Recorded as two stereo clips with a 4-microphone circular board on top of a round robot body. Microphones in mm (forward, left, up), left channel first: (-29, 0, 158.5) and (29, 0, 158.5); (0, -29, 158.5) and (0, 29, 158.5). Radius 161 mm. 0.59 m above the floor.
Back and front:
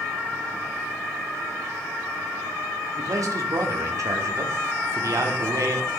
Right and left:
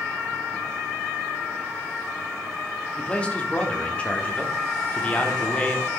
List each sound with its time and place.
3.0 s a man speaking: 20° right, 1.6 m